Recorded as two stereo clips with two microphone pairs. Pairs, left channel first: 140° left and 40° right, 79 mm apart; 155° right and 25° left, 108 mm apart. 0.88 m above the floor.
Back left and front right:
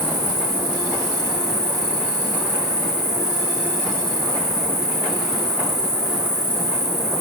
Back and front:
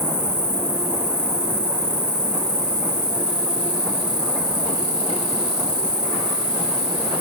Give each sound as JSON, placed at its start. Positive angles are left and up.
{"t": 0.0, "sound": "an insect", "azimuth_deg": -80, "distance_m": 0.9}